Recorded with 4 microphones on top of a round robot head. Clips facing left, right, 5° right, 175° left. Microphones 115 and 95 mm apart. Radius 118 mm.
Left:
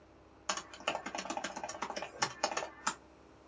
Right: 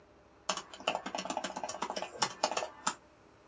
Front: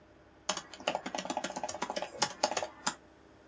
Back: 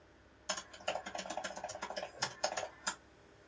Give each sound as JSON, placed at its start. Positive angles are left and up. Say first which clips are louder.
{"t": 0.5, "sound": "typing on a keyboard", "louder": "right 2 dB, front 5 dB", "azimuth_deg": -20, "distance_m": 0.7}